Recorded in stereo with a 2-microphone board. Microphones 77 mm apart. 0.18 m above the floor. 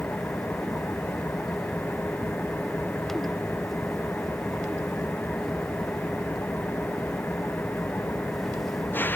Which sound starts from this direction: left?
An engine running, at 0.0 s.